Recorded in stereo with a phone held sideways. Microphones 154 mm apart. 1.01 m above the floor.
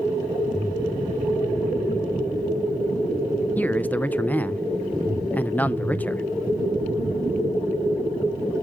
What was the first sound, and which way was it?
A man speaking, 10° left (ahead or behind).